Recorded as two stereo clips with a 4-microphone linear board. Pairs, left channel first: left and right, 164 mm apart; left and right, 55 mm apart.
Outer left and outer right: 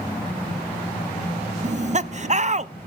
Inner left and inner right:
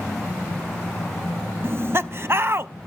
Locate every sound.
1.6 s laughter: 45° right (ahead or behind), 0.5 m